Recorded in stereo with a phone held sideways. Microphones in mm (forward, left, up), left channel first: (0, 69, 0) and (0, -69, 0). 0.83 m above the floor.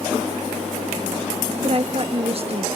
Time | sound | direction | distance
1.6 | a woman speaking | 45° right (ahead or behind) | ?